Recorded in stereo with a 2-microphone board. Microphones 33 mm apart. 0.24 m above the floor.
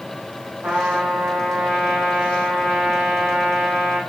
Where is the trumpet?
65° right (ahead or behind), 5.5 m.